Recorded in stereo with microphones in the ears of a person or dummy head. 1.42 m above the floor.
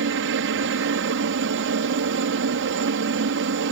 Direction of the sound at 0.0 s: 65° right (ahead or behind).